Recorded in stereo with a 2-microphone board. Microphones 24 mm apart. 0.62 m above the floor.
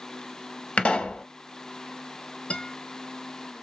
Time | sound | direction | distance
0.8 | a pop | 60° left (ahead or behind) | 0.9 m
2.5 | a guitar | 50° left (ahead or behind) | 0.8 m